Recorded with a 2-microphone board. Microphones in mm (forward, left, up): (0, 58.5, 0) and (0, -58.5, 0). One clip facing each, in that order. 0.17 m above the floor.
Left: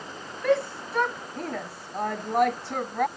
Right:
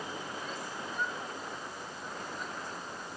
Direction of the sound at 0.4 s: 70° left (ahead or behind).